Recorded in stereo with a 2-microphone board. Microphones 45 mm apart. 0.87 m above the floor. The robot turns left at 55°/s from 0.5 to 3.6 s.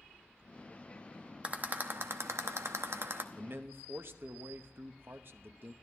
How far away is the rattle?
About 0.8 m.